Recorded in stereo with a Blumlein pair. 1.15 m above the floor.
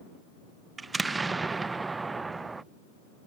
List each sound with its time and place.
0.8 s an explosion: 10° right